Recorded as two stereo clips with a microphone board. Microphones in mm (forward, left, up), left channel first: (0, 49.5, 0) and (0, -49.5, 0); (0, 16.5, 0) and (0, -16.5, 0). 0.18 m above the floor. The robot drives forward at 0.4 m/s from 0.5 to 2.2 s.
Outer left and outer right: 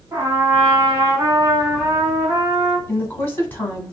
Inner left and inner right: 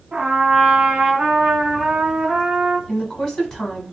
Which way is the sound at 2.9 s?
20° left (ahead or behind).